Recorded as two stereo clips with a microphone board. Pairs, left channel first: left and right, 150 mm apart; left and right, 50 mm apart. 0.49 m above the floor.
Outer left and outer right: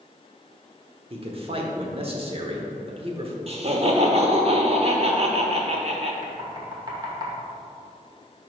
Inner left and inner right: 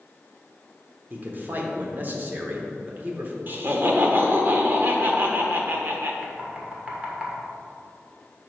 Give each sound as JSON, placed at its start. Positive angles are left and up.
{"t": 1.1, "sound": "a man speaking", "side_deg": -40, "distance_m": 1.0}
{"t": 3.5, "sound": "laughter", "side_deg": -45, "distance_m": 1.0}
{"t": 6.2, "sound": "knocking", "side_deg": -30, "distance_m": 1.3}